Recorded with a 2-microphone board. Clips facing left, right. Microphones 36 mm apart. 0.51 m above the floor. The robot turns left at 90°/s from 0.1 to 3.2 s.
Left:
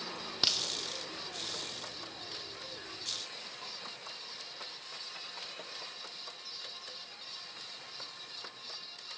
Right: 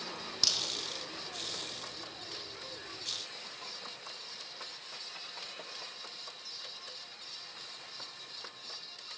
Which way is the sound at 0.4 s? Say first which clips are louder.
Left 1 dB; 35° left (ahead or behind).